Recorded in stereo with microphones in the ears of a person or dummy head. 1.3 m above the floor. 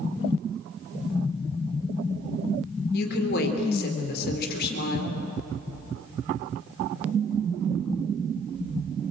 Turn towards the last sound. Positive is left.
turn(degrees=60)  # may be behind; listen again after turning